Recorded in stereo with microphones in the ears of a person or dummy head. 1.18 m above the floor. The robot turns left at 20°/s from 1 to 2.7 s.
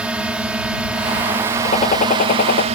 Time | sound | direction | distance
0.0 | a drone | 5° right | ?
1.6 | a gunshot | 30° left (ahead or behind) | ?